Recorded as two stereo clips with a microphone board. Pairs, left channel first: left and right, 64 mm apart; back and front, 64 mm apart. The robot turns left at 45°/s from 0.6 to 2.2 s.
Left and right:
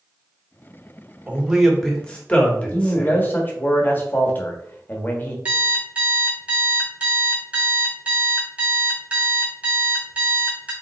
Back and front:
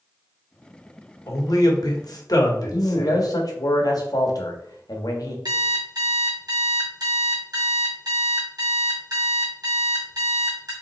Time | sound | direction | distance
1.3 | a man speaking | 160° right | 1.2 m
2.7 | a man speaking | 150° left | 1.2 m
5.5 | an alarm clock | 20° right | 2 m